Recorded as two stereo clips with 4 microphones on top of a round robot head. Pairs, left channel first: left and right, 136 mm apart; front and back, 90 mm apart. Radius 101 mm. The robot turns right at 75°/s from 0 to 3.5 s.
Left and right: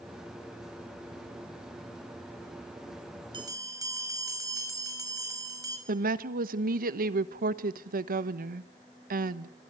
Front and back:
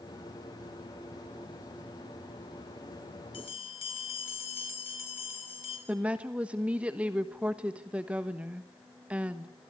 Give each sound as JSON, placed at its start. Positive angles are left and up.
{"t": 3.3, "sound": "a bell", "azimuth_deg": -35, "distance_m": 5.5}
{"t": 5.9, "sound": "a woman speaking", "azimuth_deg": -100, "distance_m": 1.2}